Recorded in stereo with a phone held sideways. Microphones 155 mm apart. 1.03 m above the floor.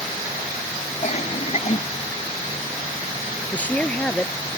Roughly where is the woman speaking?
Centre.